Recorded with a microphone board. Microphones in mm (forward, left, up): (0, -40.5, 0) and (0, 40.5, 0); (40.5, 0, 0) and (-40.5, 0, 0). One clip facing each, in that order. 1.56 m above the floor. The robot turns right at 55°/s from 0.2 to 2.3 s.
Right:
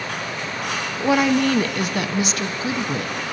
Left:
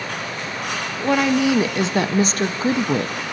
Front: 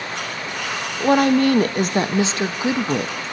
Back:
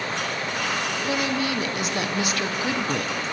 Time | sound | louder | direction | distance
1.0 | a woman speaking | even, front 13 dB | 15° right | 0.6 m